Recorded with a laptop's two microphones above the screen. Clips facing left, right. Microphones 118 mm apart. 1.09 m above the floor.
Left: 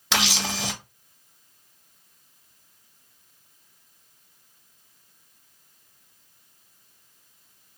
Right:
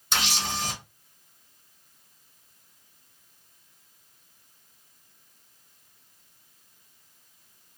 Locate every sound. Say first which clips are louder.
0.1 s a camera shutter: left 3 dB; 80° left, 0.6 m